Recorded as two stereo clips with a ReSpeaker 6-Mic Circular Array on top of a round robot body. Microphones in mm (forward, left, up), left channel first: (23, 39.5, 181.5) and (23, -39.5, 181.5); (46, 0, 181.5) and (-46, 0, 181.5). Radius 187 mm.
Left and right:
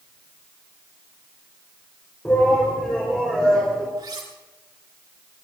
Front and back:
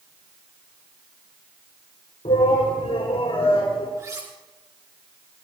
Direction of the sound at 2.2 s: 20° left.